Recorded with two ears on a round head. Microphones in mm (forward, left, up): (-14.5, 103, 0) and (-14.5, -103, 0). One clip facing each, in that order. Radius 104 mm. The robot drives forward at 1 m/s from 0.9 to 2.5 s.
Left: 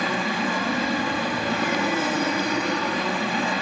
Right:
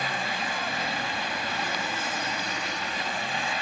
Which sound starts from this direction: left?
An aircraft, at 0.0 s.